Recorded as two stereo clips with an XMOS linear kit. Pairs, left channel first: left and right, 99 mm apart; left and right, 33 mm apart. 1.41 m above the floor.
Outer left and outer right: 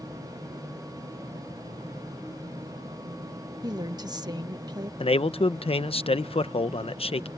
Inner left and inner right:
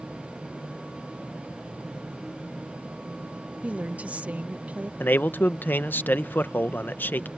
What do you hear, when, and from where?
3.6 s a woman speaking: 45° right (ahead or behind)
5.0 s a man speaking: 75° left (ahead or behind)